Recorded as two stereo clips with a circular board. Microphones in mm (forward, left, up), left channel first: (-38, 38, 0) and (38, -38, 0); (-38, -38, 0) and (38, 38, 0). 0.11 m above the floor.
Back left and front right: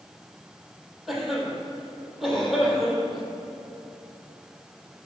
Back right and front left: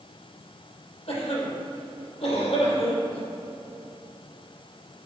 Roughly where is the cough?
Behind right.